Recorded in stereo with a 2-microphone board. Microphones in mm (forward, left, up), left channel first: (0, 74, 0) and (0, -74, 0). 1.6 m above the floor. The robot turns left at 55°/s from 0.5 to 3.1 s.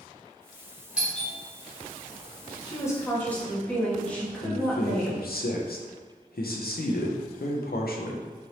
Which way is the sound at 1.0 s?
10° right (ahead or behind).